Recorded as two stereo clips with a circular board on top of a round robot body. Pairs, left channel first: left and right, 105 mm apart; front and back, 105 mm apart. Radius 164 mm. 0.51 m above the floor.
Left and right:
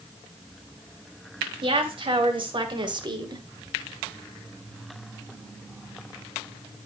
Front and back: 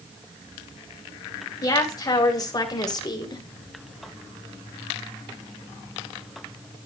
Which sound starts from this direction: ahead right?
A woman speaking, at 1.6 s.